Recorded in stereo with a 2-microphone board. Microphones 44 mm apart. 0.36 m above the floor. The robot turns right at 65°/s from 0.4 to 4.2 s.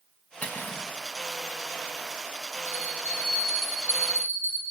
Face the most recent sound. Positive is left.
turn(degrees=-135)